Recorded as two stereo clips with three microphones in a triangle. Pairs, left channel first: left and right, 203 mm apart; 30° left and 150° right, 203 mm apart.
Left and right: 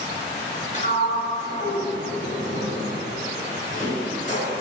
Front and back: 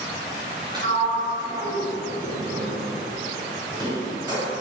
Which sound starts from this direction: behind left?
A sliding door, at 0.7 s.